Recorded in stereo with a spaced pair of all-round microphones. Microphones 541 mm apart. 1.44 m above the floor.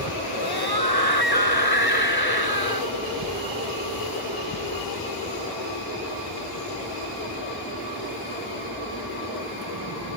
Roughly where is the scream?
Left.